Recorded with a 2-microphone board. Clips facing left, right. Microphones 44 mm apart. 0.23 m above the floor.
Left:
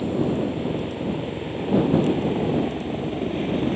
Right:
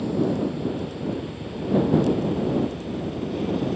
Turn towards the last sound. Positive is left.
turn(degrees=35)  # may be behind; listen again after turning